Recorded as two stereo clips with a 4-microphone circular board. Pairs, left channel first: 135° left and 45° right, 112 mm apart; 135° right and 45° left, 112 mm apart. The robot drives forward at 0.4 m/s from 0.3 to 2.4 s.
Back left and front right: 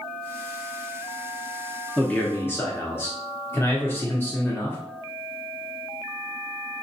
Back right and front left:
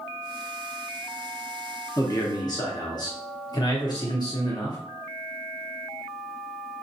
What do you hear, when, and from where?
2.0 s a man speaking: 150° right, 0.6 m; by 4.8 s 165° right, 0.7 m